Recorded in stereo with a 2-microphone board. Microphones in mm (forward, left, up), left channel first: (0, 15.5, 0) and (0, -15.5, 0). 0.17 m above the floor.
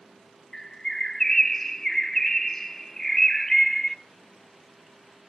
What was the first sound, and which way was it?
A bird, 10° left (ahead or behind).